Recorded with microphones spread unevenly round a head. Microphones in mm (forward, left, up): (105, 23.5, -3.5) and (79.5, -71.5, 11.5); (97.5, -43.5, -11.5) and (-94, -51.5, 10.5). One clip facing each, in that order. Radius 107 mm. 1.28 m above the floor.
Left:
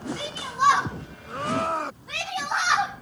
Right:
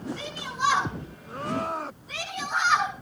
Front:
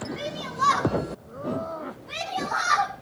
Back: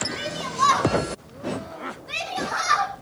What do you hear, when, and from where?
0.2 s a shout: 140° left, 6 m; by 2.9 s 110° left, 5 m